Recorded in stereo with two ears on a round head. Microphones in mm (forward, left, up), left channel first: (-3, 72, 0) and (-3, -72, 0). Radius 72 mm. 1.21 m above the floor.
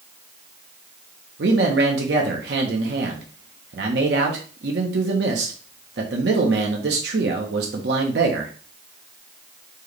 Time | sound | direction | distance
1.4 | a man speaking | 75° right (ahead or behind) | 1.1 m